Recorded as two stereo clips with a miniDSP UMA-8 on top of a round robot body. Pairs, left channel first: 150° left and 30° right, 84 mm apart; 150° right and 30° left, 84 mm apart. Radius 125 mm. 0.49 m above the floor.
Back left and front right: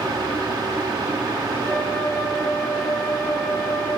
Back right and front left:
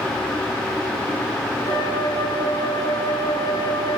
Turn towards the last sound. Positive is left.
turn(degrees=-125)